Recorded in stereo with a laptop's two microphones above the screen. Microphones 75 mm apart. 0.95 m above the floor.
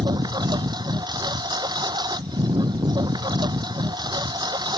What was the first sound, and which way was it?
A lawn mower, 70° right (ahead or behind).